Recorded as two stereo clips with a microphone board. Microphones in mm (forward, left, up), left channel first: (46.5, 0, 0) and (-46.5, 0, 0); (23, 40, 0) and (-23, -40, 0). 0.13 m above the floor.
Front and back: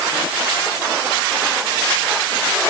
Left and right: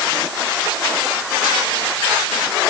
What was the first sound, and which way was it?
Only background noise.